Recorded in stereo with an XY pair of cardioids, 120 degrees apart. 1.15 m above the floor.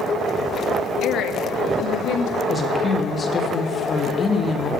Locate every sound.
1.0 s a woman speaking: 65° left, 1.0 m; by 2.4 s 70° left, 2.5 m
2.5 s a woman speaking: 25° left, 2.5 m